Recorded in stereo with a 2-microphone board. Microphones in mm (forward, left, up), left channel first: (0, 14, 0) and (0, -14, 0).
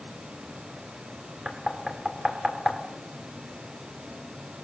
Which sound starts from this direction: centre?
Knocking, at 1.4 s.